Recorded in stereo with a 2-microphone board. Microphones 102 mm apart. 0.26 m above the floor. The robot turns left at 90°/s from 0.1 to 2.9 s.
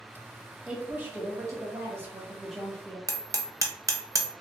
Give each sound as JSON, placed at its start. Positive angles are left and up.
{"t": 0.7, "sound": "a woman speaking", "side_deg": -5, "distance_m": 1.1}
{"t": 3.1, "sound": "hammering", "side_deg": -35, "distance_m": 0.5}